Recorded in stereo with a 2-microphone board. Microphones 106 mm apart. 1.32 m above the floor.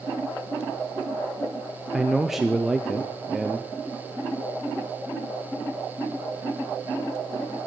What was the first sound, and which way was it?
A man speaking, 5° right (ahead or behind).